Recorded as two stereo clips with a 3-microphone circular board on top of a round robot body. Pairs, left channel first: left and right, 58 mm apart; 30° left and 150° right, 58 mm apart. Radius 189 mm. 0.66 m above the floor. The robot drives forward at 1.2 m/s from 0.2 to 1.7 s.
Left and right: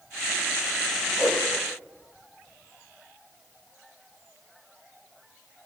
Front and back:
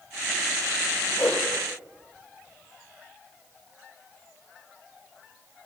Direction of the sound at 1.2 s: 20° right.